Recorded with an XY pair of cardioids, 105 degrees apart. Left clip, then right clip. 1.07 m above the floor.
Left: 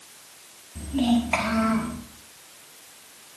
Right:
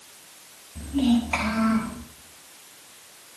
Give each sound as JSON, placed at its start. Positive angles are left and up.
{"t": 0.8, "sound": "a child speaking", "azimuth_deg": 20, "distance_m": 5.5}